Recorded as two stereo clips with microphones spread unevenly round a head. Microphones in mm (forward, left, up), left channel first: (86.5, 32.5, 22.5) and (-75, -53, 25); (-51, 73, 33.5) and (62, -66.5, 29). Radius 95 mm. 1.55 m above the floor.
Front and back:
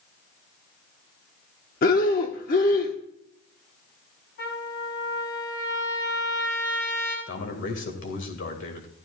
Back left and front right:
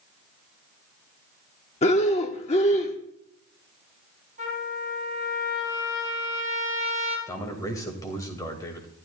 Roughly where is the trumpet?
Ahead.